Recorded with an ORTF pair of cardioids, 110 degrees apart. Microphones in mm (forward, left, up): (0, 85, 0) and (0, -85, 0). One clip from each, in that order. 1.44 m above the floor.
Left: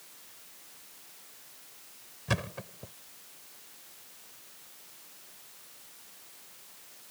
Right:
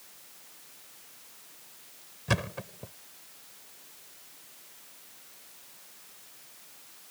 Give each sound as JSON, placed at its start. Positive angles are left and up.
{"t": 2.3, "sound": "a thud", "azimuth_deg": -15}